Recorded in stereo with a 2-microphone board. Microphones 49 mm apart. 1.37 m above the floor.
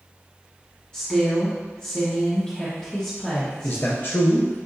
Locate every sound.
0.9 s a woman speaking: 20° left (ahead or behind), 1.0 m
3.6 s a man speaking: 45° left (ahead or behind), 0.6 m